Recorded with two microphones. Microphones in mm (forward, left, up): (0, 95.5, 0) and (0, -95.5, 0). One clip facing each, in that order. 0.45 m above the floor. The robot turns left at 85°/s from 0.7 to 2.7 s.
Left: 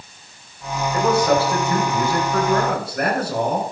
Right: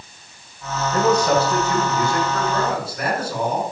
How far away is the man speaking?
About 5 m.